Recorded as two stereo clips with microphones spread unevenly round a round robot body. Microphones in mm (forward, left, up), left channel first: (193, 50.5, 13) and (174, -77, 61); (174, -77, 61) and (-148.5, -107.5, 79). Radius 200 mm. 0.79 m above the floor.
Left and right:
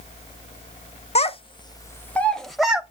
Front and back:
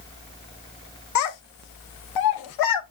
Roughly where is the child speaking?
Ahead left.